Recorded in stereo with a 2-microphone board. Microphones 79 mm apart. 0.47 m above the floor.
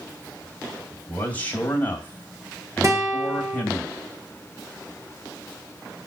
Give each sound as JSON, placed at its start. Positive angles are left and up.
{"t": 0.9, "sound": "a man speaking", "side_deg": 25, "distance_m": 2.5}
{"t": 2.8, "sound": "a guitar", "side_deg": -45, "distance_m": 1.4}